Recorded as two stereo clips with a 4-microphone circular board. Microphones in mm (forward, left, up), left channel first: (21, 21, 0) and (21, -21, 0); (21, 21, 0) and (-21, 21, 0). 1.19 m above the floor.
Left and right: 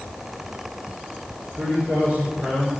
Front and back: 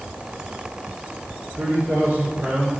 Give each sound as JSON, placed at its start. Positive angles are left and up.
{"t": 1.6, "sound": "a man speaking", "azimuth_deg": -150, "distance_m": 5.0}